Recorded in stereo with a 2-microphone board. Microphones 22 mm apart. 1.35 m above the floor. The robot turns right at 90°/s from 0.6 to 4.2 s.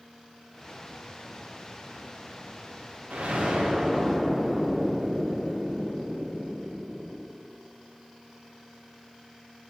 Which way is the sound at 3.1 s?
95° right.